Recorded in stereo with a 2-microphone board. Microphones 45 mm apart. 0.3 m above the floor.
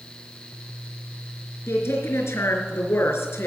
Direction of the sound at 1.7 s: 65° left (ahead or behind).